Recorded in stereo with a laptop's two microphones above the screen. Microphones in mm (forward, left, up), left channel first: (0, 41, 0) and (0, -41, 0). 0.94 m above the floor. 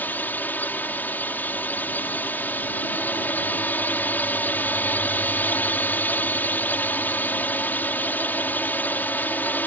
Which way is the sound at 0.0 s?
25° left (ahead or behind).